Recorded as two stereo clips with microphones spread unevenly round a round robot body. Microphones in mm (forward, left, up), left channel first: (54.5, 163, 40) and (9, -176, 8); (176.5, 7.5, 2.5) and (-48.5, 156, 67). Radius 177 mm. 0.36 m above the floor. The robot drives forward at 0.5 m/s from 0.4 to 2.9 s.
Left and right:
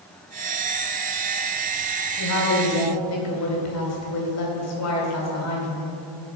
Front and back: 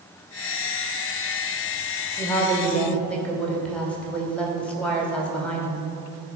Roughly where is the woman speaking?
Ahead left.